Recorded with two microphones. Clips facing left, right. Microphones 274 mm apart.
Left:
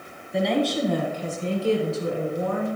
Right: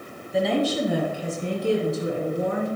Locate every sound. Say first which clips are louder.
0.3 s a woman speaking: even; centre (ahead or behind), 1.5 m; by 2.8 s 25° right (ahead or behind), 2.5 m